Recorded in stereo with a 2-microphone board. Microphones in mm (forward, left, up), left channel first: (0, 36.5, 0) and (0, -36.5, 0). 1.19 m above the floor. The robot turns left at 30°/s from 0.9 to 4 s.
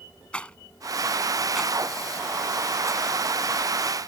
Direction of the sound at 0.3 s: 15° left (ahead or behind).